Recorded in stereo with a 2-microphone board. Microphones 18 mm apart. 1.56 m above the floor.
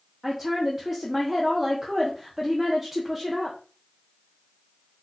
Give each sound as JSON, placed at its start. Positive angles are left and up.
{"t": 0.2, "sound": "a woman speaking", "side_deg": -10, "distance_m": 0.7}